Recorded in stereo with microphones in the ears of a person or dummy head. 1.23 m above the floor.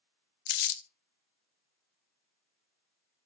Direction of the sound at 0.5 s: 50° left (ahead or behind).